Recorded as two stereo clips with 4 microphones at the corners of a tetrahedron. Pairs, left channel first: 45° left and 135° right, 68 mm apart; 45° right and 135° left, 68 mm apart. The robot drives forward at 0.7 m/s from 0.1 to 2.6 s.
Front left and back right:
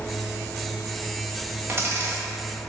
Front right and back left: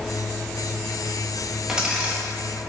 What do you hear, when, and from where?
1.7 s a dropped coin: 150° right, 1.1 m; by 2.2 s 160° right, 1.4 m